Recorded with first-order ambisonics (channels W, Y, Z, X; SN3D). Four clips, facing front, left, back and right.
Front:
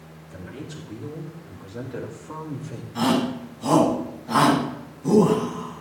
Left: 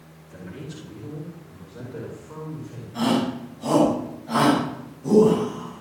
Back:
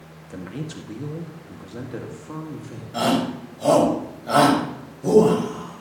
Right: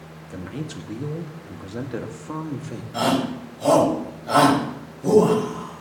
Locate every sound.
0.3 s a man speaking: 135° right, 2 m; by 2.8 s 85° right, 2.5 m
2.9 s a shout: 140° right, 6.5 m